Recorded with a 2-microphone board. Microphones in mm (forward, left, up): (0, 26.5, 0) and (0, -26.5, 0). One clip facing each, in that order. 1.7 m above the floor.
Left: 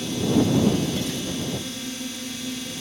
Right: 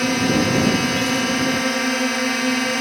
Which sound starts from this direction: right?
A drone, at 0.0 s.